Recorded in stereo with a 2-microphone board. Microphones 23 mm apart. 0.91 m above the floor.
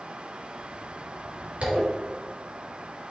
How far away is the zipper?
About 4 m.